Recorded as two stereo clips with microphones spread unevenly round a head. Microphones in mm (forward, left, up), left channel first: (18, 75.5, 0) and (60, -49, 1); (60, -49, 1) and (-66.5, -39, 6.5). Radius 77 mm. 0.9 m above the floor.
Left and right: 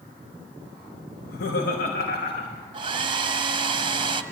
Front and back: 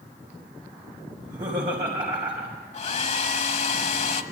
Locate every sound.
1.2 s laughter: 110° left, 4.5 m
2.7 s a hair dryer: 20° right, 1.3 m